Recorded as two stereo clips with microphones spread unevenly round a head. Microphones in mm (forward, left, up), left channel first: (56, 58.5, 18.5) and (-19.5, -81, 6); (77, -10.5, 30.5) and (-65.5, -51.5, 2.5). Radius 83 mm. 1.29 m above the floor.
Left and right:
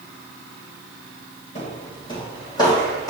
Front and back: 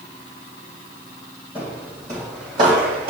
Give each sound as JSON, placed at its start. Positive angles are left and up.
{"t": 1.6, "sound": "footsteps", "azimuth_deg": 105, "distance_m": 2.5}